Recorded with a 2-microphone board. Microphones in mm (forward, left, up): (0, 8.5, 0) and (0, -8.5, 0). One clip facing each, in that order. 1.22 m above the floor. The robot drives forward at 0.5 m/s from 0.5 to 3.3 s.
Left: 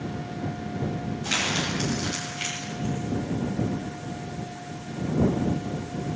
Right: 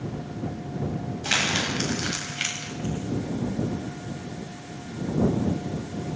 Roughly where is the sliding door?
I don't hear a sliding door.